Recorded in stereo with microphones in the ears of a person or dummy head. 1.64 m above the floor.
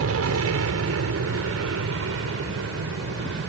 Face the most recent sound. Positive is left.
turn(degrees=-80)